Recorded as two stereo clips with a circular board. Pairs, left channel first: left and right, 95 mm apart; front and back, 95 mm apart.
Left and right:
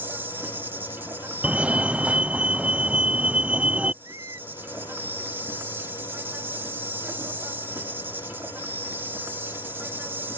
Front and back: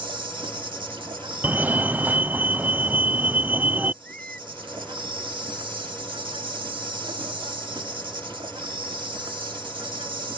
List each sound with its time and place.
0.0 s an insect: 155° right
1.4 s a fire alarm: 145° right
4.0 s a squeak: 70° right